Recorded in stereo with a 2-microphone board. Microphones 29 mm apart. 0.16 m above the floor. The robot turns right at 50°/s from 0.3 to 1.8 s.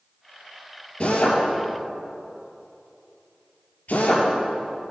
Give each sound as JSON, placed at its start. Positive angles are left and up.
{"t": 1.0, "sound": "a drill", "side_deg": 50, "distance_m": 4.0}